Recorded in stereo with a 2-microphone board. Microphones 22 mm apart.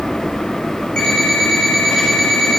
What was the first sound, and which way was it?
An alarm clock, 35° left (ahead or behind).